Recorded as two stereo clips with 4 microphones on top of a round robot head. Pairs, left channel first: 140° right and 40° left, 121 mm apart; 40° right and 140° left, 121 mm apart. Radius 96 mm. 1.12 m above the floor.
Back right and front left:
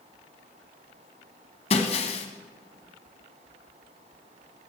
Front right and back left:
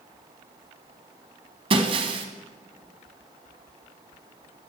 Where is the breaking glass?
175° right, 1.5 m.